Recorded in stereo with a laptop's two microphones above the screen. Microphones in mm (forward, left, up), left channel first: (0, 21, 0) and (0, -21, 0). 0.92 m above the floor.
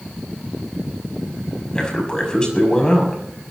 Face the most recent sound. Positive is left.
turn(degrees=20)  # may be behind; listen again after turning